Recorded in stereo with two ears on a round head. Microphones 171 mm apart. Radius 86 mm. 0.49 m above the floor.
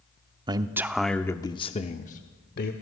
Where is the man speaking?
25° right (ahead or behind), 0.8 m; by 2.7 s 50° left (ahead or behind), 1.2 m.